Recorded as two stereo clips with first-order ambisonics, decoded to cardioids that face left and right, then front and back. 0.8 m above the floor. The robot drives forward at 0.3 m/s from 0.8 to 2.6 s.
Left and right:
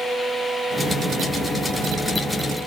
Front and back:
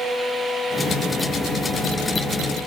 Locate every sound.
Only background noise.